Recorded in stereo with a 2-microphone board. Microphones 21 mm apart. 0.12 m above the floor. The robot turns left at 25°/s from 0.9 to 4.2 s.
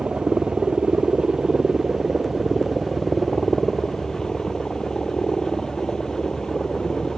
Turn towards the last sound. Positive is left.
turn(degrees=140)